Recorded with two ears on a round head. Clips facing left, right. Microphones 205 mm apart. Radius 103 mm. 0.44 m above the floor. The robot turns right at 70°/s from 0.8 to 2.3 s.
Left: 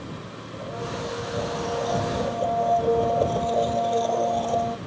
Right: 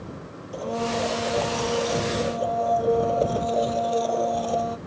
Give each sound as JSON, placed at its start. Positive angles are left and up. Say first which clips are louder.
{"t": 0.5, "sound": "a blender", "louder": "right 6 dB", "azimuth_deg": -110}